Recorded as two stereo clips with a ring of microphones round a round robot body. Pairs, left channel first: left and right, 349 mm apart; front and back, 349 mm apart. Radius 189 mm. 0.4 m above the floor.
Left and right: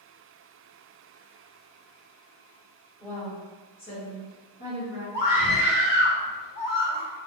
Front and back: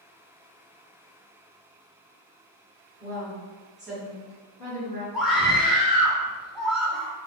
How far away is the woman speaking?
About 1.5 m.